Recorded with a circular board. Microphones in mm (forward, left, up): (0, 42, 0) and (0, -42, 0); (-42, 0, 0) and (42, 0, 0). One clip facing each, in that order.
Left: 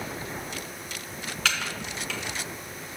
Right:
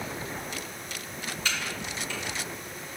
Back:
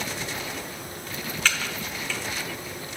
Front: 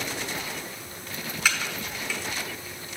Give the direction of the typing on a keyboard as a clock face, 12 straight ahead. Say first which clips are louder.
Left 4 dB, even; 9 o'clock.